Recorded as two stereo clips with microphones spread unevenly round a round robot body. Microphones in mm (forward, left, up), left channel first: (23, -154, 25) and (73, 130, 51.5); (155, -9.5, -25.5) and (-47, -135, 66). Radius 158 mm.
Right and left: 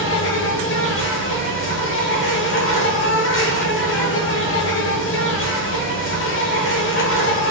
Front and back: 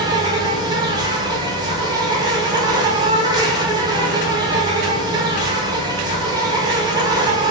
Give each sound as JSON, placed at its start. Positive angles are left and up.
{"t": 0.0, "sound": "an insect", "azimuth_deg": -65, "distance_m": 1.4}